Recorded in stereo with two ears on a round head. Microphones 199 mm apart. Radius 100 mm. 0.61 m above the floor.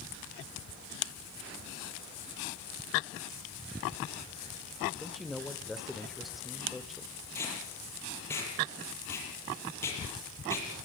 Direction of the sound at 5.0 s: Centre (ahead or behind).